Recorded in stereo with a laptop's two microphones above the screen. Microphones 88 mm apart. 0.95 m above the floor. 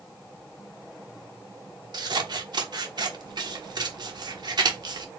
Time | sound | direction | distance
1.9 | scissors | 55° right (ahead or behind) | 1.1 m